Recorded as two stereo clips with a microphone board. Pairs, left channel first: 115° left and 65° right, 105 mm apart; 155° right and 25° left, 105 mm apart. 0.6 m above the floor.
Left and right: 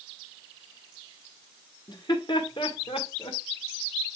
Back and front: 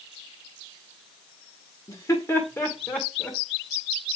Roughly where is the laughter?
Behind left.